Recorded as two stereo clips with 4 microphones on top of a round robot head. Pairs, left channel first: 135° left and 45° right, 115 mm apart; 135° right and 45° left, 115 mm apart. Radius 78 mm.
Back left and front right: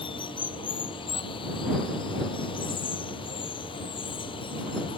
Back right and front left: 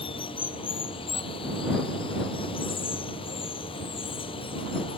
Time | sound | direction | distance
0.0 | running water | straight behind | ?